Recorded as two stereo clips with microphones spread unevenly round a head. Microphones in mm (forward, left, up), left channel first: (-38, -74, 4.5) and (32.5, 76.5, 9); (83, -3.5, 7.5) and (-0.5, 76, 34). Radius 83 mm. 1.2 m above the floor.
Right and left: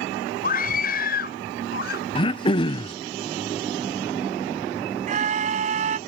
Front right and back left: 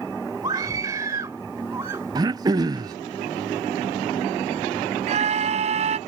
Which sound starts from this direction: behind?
Throat clearing, at 2.1 s.